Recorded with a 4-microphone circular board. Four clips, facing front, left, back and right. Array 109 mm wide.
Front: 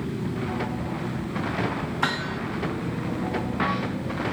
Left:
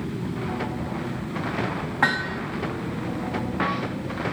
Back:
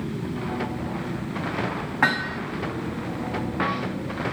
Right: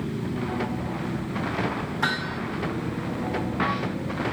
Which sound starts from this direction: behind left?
Hammering, at 2.0 s.